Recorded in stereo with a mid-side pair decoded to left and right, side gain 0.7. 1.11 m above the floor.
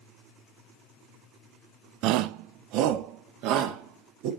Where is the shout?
60° right, 0.7 m; by 4.3 s 65° right, 3 m.